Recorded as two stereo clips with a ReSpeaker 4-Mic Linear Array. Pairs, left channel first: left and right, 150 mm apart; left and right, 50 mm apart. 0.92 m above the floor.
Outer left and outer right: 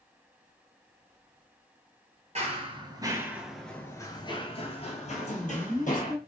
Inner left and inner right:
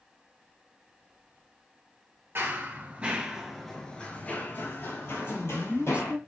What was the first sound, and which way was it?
Running footsteps, 45° right (ahead or behind).